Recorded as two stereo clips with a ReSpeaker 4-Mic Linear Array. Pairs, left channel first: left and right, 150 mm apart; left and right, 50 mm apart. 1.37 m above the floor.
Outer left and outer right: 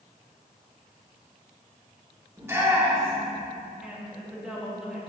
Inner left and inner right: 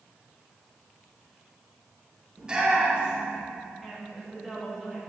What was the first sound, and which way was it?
A shout, 20° right (ahead or behind).